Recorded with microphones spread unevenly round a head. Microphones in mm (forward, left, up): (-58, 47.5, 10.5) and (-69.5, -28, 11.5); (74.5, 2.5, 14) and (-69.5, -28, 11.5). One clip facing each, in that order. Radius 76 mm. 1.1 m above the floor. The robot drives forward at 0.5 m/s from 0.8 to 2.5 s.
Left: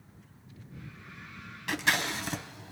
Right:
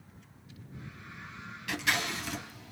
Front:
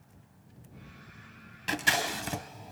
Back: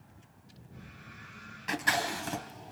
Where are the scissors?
45° left, 0.9 m; by 2.7 s 85° left, 0.8 m.